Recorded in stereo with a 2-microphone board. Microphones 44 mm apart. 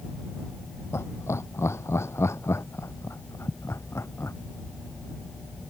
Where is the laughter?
75° left (ahead or behind).